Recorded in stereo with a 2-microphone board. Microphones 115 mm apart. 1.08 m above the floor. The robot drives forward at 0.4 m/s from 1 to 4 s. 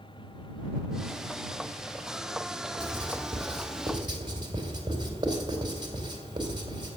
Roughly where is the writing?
Right.